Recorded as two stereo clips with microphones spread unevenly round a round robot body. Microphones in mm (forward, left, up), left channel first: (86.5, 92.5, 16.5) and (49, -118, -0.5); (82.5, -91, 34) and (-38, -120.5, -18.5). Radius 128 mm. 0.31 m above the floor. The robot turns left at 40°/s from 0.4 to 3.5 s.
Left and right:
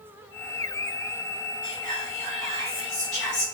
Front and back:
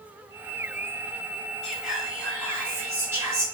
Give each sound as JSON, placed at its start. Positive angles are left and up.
{"t": 1.6, "sound": "whispering", "azimuth_deg": -105, "distance_m": 1.6}